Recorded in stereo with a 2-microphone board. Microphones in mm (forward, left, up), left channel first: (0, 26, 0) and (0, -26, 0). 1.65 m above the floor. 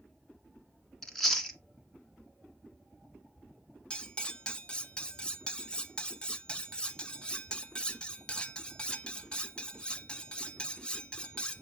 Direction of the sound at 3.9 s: 20° left (ahead or behind).